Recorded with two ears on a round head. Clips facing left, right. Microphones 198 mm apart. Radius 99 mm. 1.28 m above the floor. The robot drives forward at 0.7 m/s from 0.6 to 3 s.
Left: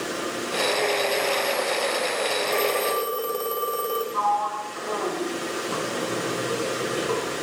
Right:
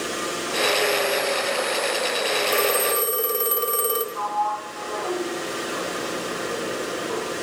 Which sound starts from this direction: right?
A phone ringing, at 2.5 s.